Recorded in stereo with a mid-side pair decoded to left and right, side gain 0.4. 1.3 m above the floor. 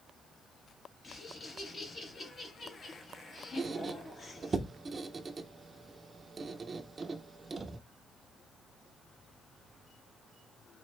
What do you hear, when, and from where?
1.0 s laughter: 45° left, 3 m
3.6 s a squeak: 40° right, 0.6 m